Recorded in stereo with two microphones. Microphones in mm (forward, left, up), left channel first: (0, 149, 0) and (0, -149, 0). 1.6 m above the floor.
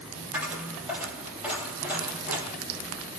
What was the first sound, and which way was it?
A dropped coin, 5° right (ahead or behind).